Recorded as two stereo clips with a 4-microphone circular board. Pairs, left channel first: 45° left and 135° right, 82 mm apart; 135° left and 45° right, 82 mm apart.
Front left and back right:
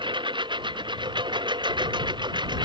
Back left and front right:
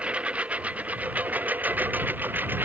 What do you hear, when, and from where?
0.0 s a lawn mower: 120° right; by 2.6 s 110° right